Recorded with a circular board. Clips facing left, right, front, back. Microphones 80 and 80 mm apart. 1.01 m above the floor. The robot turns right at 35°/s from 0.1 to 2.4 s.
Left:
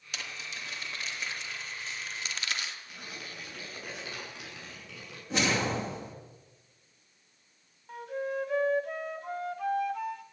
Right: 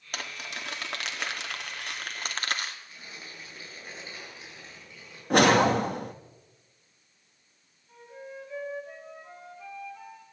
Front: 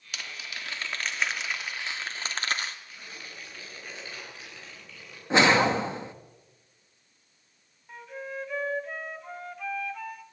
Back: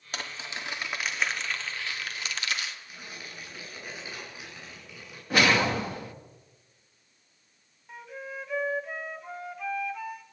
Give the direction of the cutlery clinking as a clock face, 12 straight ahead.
I don't hear cutlery clinking.